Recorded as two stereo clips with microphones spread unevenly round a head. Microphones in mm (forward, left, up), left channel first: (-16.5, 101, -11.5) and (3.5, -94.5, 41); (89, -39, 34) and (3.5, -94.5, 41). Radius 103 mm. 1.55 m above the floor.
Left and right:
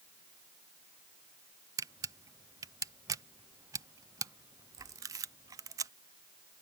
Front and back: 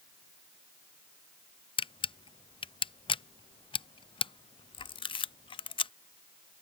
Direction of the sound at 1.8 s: 10° right.